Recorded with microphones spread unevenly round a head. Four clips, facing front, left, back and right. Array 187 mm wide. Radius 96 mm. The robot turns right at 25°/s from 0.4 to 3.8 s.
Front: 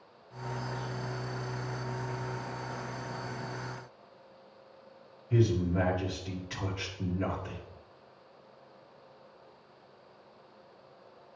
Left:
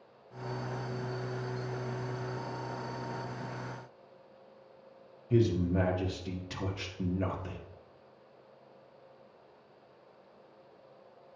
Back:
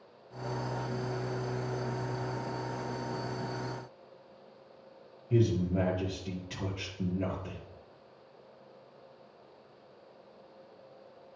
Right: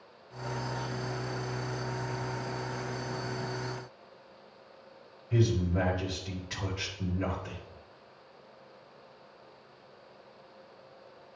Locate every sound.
5.3 s a man speaking: 130° left, 1.5 m